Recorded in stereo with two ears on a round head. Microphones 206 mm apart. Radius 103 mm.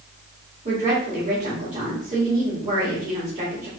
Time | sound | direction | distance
0.7 | a woman speaking | 25° right (ahead or behind) | 2 m